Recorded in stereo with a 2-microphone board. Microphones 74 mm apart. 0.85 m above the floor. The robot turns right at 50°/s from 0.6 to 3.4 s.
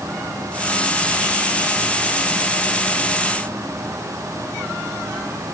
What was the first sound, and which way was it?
Only background noise.